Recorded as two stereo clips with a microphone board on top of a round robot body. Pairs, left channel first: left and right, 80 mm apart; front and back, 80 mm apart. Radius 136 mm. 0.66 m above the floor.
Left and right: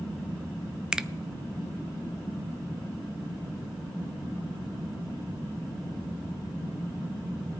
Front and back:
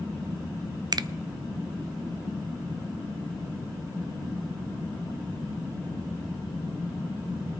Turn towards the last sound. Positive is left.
turn(degrees=-170)